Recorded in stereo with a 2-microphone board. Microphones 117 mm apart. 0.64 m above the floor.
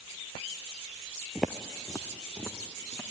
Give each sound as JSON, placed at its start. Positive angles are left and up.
{"t": 1.4, "sound": "footsteps", "side_deg": -5, "distance_m": 0.8}